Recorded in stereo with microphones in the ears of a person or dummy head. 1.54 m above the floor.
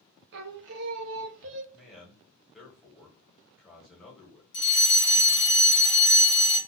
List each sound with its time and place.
0.3 s singing: 65° right (ahead or behind), 0.7 m
1.7 s a man speaking: centre (ahead or behind), 1.3 m
4.5 s a fire alarm: 55° left (ahead or behind), 1.7 m